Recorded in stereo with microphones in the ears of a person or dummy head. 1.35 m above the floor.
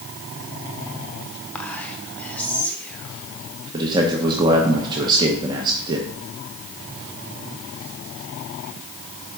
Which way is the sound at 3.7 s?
25° right (ahead or behind).